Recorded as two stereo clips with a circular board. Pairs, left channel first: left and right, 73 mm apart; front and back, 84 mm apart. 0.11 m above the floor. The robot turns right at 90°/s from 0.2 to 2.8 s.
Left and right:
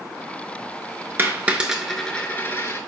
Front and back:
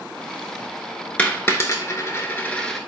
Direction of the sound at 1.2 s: 60° right.